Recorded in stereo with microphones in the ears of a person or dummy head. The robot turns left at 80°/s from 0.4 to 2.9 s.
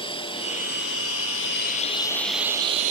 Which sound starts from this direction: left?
A drone, at 0.0 s.